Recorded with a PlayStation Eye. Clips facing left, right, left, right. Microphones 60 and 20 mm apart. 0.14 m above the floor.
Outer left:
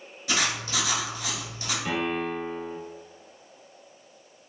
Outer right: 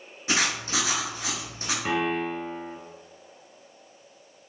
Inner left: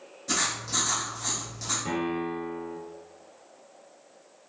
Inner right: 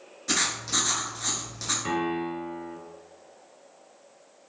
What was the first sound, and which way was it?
Writing, 30° right (ahead or behind).